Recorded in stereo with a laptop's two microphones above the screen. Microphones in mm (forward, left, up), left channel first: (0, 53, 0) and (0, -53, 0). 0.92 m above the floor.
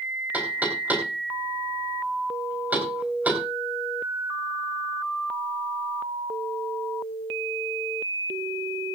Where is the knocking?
15° right (ahead or behind), 3.5 m.